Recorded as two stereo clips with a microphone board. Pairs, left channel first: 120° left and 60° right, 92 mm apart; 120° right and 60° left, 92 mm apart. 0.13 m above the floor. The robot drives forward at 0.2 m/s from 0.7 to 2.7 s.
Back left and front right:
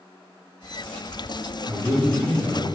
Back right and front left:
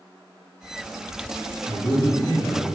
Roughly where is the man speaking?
Right.